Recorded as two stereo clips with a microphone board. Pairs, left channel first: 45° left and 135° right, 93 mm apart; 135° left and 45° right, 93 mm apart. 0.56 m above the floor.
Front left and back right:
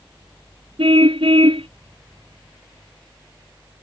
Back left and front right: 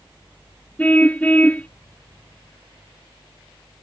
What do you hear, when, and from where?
0.8 s a car horn: 150° right